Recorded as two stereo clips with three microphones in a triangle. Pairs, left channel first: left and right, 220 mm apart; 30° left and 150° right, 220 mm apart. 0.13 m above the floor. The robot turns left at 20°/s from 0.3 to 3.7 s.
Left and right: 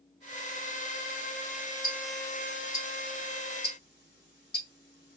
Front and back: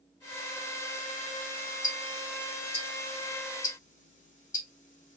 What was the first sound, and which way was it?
Ticking, 85° left.